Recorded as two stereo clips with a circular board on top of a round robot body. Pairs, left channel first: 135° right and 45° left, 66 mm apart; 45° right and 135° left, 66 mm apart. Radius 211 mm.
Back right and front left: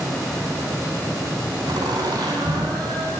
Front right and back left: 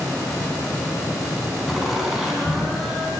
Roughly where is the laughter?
Ahead left.